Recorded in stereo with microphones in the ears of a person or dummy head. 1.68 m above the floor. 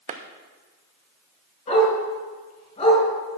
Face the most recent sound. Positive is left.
turn(degrees=30)  # may be behind; listen again after turning